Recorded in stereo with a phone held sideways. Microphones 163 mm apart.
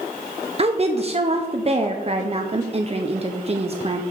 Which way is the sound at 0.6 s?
40° right (ahead or behind).